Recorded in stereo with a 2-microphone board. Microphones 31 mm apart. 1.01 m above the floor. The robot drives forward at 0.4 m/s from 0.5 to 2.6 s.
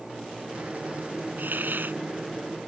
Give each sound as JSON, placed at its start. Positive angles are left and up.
{"t": 1.4, "sound": "a hiss", "side_deg": -85}